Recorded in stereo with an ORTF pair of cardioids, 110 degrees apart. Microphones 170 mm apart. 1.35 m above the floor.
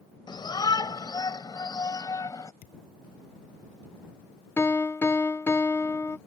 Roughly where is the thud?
Ahead left.